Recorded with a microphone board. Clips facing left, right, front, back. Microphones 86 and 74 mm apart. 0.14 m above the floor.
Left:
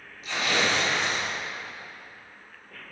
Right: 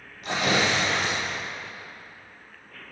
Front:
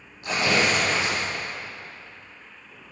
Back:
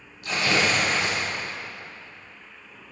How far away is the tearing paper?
About 6 m.